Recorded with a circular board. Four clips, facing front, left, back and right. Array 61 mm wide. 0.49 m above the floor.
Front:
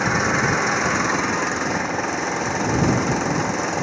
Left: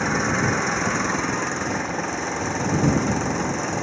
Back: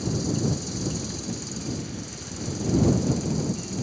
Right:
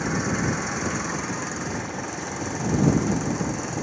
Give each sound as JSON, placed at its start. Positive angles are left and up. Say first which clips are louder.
{"t": 0.0, "sound": "an engine running", "louder": "left 4 dB, front 8 dB", "azimuth_deg": 20}